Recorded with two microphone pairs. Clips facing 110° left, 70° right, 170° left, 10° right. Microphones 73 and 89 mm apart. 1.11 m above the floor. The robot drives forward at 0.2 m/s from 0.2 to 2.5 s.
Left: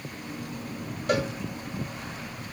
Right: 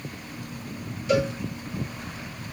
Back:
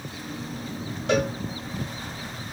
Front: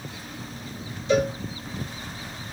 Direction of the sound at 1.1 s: 145° left.